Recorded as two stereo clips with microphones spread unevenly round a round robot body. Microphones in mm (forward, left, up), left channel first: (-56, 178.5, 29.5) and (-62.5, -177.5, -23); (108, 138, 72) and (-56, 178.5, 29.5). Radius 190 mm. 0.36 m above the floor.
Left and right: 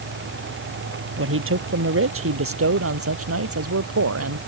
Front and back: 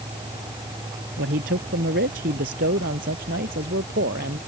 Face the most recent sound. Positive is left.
turn(degrees=-140)